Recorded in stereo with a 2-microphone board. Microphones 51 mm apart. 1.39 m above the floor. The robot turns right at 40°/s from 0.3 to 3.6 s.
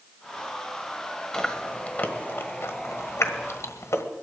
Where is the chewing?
15° left (ahead or behind), 1.3 m; by 4.0 s 70° left (ahead or behind), 1.3 m.